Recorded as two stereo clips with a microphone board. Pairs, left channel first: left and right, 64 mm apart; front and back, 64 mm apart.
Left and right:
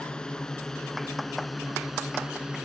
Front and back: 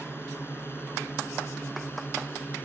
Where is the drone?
20° left; by 2.7 s 25° right.